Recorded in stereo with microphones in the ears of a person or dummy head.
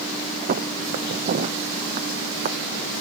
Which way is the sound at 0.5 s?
40° right (ahead or behind).